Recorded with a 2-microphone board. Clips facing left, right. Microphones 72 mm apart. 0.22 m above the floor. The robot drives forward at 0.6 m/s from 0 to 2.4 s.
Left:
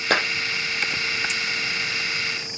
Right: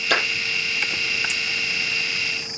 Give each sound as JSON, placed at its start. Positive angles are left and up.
{"t": 0.1, "sound": "a clap", "side_deg": 40, "distance_m": 5.5}